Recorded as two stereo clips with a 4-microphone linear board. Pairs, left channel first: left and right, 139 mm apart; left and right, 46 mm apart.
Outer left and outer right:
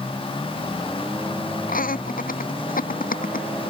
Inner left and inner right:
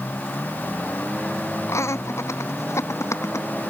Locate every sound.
1.7 s laughter: 85° left